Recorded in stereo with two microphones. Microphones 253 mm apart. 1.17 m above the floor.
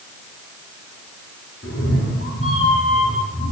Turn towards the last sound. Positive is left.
turn(degrees=60)  # may be behind; listen again after turning